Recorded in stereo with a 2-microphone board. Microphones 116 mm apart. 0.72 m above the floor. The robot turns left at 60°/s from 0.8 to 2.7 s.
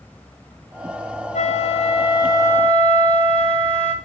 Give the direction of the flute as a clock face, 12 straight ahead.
9 o'clock.